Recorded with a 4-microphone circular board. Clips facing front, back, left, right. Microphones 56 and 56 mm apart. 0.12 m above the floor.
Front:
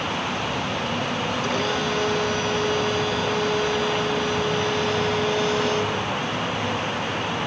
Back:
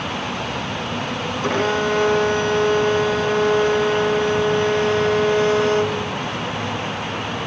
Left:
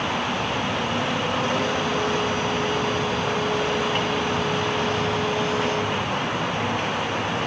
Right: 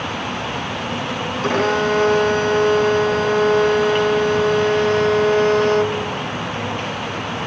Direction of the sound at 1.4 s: 125° right.